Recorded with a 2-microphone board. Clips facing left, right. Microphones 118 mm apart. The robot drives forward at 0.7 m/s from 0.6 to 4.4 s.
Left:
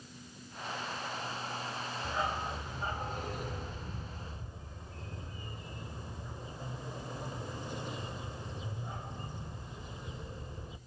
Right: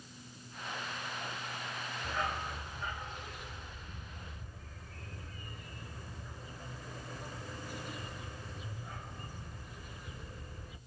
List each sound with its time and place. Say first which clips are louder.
2.0 s a dog barking: left 2 dB; 20° left (ahead or behind), 1.1 m; by 10.8 s 25° left (ahead or behind), 0.9 m